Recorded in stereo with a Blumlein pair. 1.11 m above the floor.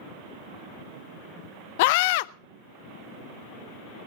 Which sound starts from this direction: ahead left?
A scream, at 1.8 s.